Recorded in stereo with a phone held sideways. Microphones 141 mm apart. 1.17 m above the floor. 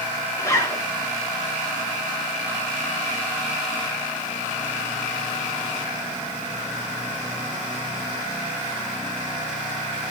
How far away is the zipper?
About 4.5 m.